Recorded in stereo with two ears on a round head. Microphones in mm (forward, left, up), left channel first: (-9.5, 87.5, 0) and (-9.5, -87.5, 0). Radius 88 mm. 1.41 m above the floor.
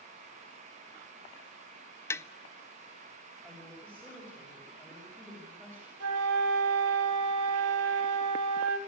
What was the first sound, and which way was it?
Tapping, 15° left (ahead or behind).